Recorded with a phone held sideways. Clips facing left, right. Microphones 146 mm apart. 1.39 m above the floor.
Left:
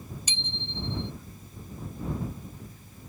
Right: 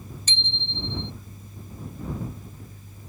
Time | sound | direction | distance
0.3 | a bicycle bell | 10° left (ahead or behind) | ?